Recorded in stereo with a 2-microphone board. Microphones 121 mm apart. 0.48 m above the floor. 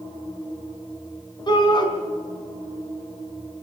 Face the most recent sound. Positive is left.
turn(degrees=40)  # may be behind; listen again after turning